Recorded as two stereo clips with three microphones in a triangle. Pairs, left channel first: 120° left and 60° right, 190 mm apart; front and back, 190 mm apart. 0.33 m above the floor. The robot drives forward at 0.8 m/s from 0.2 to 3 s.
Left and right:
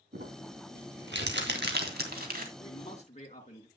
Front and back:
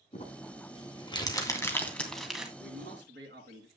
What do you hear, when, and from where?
0.1 s crumpling: 50° right, 2.5 m; by 2.5 s 95° right, 2 m
2.6 s a man speaking: 170° left, 3.5 m